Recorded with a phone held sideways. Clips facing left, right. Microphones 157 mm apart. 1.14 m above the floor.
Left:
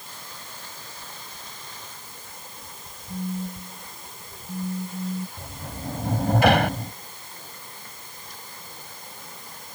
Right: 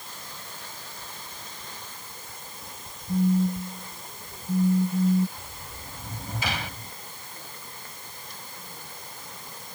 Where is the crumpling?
No crumpling in this recording.